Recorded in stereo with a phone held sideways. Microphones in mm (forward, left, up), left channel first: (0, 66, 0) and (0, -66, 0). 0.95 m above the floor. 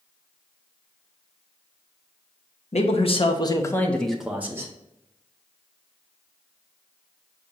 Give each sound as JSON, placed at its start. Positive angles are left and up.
{"t": 2.7, "sound": "a man speaking", "side_deg": 55, "distance_m": 0.8}